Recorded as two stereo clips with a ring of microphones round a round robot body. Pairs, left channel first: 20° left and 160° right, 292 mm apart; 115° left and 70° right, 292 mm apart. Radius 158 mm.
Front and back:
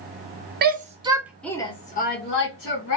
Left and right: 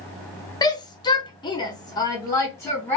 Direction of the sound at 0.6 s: Straight behind.